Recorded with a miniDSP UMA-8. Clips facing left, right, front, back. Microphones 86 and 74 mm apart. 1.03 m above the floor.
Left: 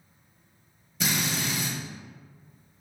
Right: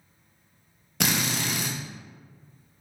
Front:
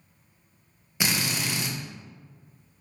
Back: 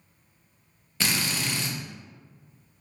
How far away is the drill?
About 0.5 m.